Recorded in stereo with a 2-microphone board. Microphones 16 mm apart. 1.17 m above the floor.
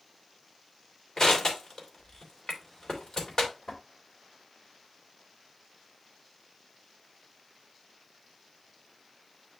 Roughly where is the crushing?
Left.